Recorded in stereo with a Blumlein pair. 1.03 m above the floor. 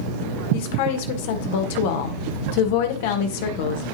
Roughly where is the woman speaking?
Ahead left.